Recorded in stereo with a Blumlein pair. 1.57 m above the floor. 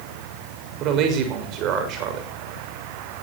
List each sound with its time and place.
0.8 s a man speaking: 35° right, 6 m